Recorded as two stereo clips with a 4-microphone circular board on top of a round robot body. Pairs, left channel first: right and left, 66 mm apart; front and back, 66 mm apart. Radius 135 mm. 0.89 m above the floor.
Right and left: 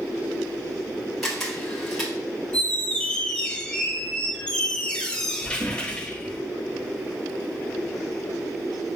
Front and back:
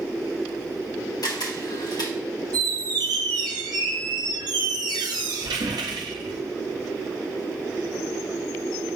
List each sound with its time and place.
1.2 s a camera shutter: 5° right, 2.5 m
2.5 s a squeak: 170° right, 0.6 m